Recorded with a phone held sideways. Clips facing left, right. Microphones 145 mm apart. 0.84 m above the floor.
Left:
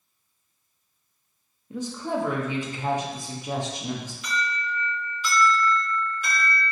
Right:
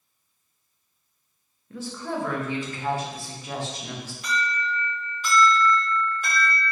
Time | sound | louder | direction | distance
1.7 | a woman speaking | left 3 dB | 15° left (ahead or behind) | 0.6 m
4.2 | an alarm | right 3 dB | 45° right (ahead or behind) | 1.8 m